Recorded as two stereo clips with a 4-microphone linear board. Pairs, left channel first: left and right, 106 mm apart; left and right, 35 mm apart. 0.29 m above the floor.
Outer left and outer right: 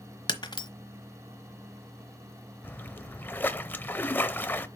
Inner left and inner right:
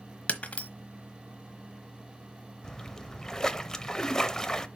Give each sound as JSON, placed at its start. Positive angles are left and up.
{"t": 0.3, "sound": "breaking glass", "side_deg": 45, "distance_m": 1.1}
{"t": 2.6, "sound": "a splash", "side_deg": 20, "distance_m": 0.7}